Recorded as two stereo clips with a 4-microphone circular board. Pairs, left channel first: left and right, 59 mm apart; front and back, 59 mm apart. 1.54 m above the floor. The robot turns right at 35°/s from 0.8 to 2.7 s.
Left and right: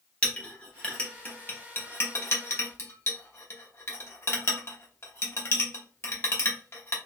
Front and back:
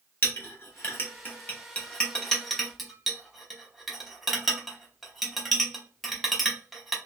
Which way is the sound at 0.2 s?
25° left.